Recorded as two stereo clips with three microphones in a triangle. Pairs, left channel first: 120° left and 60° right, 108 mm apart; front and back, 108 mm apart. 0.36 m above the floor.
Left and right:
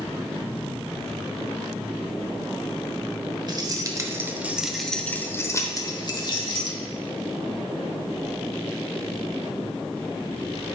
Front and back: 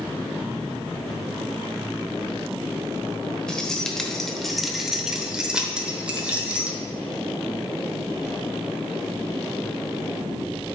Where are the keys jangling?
80° right, 1.1 m; by 6.8 s 105° left, 1.4 m.